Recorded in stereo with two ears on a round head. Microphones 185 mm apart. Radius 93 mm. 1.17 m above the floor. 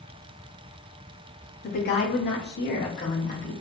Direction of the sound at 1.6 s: 45° left (ahead or behind).